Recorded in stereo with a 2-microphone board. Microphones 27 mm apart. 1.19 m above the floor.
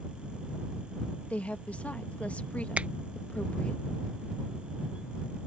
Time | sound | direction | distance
1.3 | a woman speaking | 60° left (ahead or behind) | ?
2.8 | a finger snap | 50° right (ahead or behind) | ?